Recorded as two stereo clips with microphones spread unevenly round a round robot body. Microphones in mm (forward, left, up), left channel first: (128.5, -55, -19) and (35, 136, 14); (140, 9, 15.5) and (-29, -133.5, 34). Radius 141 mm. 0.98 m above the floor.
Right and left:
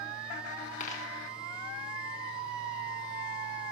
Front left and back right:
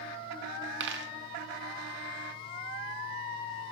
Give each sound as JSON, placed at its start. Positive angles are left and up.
{"t": 0.8, "sound": "a dropped coin", "azimuth_deg": -130, "distance_m": 0.6}